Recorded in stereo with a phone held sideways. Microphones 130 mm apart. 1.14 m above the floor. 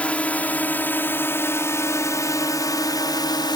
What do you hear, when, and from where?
0.0 s a drone: 10° left (ahead or behind); by 3.6 s 35° left (ahead or behind)